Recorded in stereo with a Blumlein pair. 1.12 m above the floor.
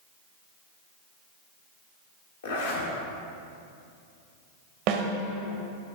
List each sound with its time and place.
2.4 s a zipper: 65° left, 1.7 m
4.9 s a snare drum: 40° right, 0.9 m